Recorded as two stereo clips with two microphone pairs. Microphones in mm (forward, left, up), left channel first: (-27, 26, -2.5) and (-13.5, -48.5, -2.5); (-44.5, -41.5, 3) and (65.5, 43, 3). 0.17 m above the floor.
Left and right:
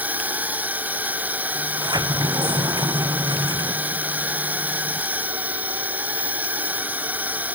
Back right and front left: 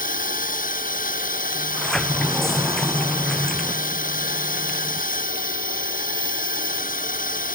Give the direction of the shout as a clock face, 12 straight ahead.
No shout in this recording.